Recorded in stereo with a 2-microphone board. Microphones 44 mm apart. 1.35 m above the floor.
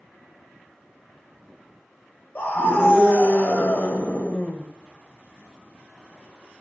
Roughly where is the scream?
Left.